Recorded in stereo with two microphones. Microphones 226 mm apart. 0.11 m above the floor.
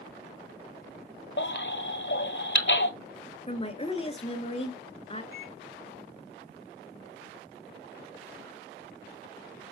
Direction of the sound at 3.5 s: 30° left (ahead or behind).